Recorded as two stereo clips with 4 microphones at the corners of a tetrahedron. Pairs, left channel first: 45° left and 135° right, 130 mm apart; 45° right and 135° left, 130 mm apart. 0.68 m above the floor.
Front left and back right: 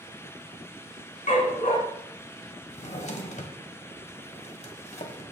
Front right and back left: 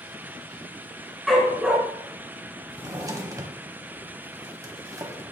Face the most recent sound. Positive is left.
turn(degrees=70)